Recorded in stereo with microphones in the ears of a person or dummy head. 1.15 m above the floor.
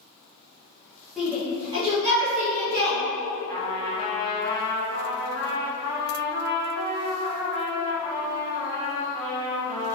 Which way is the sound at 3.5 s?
30° left (ahead or behind).